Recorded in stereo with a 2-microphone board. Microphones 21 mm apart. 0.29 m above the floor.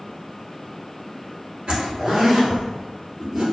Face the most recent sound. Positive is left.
turn(degrees=-50)  # may be behind; listen again after turning